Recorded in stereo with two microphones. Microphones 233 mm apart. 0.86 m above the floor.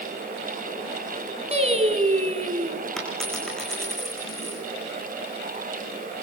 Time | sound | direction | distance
1.5 | singing | 30° right (ahead or behind) | 3 m
3.0 | a dropped coin | centre (ahead or behind) | 5 m